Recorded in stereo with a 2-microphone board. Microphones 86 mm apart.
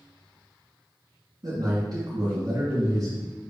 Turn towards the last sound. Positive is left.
turn(degrees=-55)  # may be behind; listen again after turning